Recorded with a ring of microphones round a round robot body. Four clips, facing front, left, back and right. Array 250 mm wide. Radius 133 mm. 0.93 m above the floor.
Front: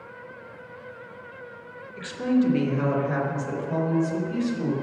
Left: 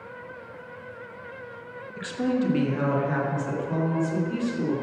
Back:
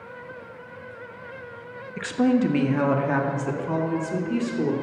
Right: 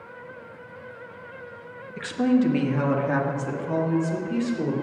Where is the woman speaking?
155° right, 1.2 m; by 4.7 s 160° right, 3 m.